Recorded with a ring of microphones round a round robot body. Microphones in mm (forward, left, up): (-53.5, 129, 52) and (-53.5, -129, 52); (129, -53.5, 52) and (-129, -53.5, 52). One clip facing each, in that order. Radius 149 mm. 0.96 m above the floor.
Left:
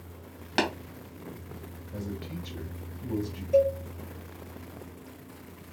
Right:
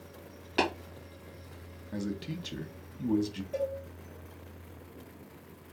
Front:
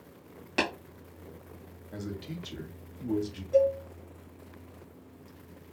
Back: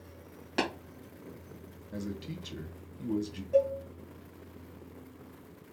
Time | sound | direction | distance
0.6 | tapping | 85° left | 1.6 m
1.9 | a man speaking | 100° right | 1.0 m
3.5 | a cowbell | 70° left | 1.8 m